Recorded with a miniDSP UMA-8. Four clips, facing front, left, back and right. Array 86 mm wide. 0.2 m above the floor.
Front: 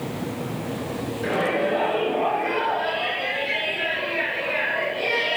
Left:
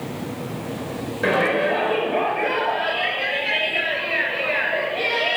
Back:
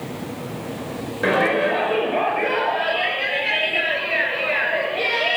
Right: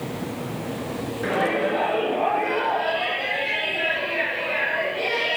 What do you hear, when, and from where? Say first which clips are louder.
1.2 s a shout: left 3 dB, back 5 dB; 165° left, 3.5 m